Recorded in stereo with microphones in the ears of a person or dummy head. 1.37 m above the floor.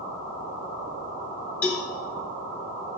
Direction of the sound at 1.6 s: 5° left (ahead or behind).